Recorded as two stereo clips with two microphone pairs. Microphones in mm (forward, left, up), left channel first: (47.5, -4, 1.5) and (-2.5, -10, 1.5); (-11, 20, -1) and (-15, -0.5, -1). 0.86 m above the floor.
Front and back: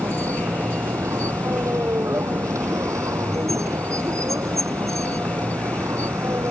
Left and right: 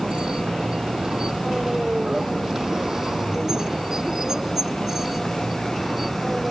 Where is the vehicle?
160° right; by 6.5 s 175° left.